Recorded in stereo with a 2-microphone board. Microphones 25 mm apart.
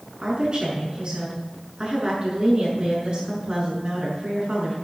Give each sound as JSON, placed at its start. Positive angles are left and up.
{"t": 0.2, "sound": "a woman speaking", "side_deg": -40, "distance_m": 6.5}